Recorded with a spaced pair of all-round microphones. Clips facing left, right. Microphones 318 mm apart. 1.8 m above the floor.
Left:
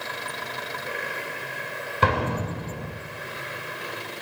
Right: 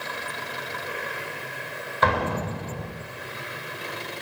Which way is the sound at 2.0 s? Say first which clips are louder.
Even; 35° left (ahead or behind).